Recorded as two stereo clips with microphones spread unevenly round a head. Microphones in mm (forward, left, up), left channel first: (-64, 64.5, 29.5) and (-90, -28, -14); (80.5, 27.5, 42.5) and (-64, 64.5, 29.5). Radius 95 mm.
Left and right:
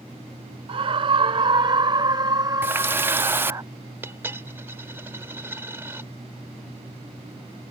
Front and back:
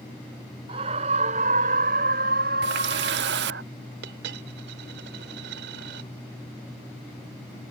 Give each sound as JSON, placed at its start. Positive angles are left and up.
{"t": 0.7, "sound": "a scream", "azimuth_deg": -130}
{"t": 2.6, "sound": "a running tap", "azimuth_deg": 180}
{"t": 4.0, "sound": "a dropped coin", "azimuth_deg": 180}